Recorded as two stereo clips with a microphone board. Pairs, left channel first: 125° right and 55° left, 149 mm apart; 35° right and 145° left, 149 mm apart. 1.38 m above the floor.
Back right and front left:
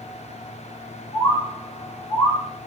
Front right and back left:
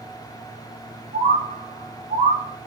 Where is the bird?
170° left, 1.7 m.